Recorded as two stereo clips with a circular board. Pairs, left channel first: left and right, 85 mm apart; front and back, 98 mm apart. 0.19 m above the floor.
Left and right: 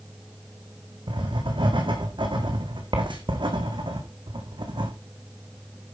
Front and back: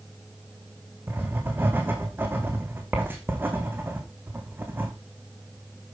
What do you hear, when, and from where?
1.1 s writing: 110° right, 3.5 m